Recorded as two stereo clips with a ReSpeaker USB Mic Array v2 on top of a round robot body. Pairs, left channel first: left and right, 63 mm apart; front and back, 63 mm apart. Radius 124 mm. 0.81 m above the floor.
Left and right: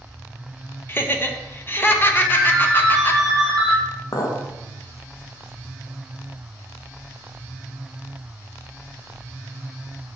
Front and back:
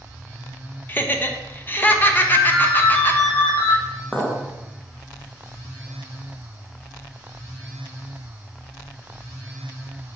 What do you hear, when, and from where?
0.9 s laughter: 50° left, 1.1 m
2.2 s a ringtone: 15° left, 2.0 m
4.1 s a clink: 75° left, 0.9 m